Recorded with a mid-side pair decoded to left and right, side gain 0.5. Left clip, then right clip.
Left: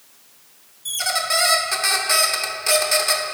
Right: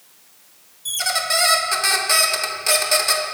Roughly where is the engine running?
No engine running in this recording.